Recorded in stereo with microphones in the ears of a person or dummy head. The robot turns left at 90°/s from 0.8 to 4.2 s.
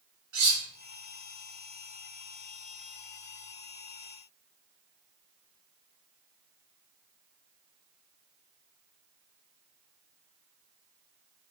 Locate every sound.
0.3 s cutlery clinking: 65° right (ahead or behind), 1.7 m